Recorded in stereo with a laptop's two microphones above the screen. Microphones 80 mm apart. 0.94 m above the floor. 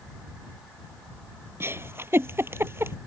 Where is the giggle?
30° right (ahead or behind).